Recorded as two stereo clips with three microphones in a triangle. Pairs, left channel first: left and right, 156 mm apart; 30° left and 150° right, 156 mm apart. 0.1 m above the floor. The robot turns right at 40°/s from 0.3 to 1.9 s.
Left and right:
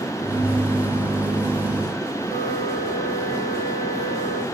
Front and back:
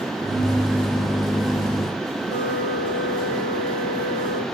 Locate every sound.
2.2 s a flute: 35° left, 4.5 m